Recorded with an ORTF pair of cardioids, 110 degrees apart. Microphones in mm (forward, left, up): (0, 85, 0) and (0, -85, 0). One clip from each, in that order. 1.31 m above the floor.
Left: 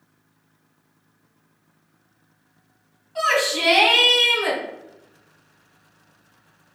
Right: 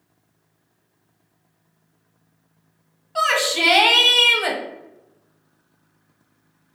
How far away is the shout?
About 0.9 m.